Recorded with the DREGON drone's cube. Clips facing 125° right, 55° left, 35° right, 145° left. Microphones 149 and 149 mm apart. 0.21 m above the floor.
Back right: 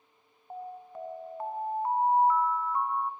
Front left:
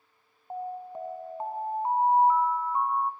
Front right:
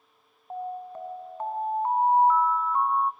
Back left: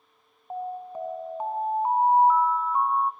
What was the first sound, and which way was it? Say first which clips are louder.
An alarm: front left 5 dB, back left 1 dB; 85° left.